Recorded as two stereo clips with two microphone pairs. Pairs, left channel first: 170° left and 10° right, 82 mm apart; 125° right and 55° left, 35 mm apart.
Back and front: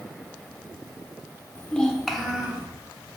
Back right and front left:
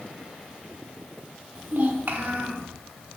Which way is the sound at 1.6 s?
100° left.